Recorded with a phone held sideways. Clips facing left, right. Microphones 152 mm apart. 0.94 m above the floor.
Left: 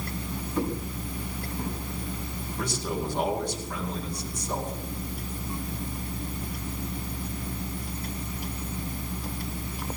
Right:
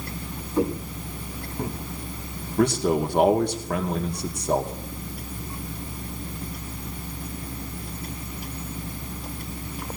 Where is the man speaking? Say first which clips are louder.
Right 11 dB; 65° right (ahead or behind), 2 m.